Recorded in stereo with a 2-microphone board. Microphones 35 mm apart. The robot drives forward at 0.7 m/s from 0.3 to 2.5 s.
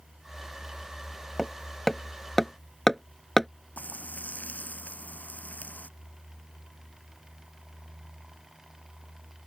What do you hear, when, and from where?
1.4 s hammering: 5° left (ahead or behind)
3.8 s frying: 50° left (ahead or behind)